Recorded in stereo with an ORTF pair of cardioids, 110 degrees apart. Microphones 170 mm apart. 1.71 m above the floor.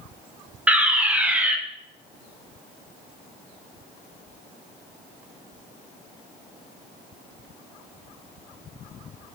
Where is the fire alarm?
10° right, 1.0 m.